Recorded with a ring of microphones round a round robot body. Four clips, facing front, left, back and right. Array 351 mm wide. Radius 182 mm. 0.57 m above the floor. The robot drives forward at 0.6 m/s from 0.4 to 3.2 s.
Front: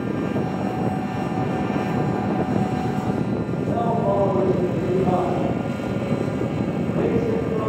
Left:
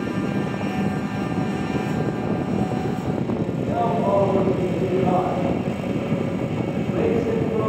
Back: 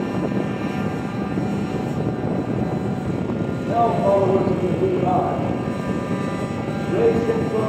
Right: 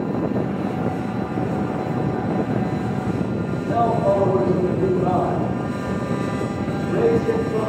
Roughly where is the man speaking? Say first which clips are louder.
Right 4 dB, back 4 dB; behind right.